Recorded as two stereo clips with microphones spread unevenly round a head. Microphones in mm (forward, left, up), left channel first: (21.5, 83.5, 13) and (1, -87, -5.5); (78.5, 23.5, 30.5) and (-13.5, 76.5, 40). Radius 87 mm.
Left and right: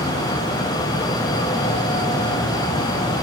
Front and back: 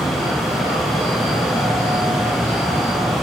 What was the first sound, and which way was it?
Only background noise.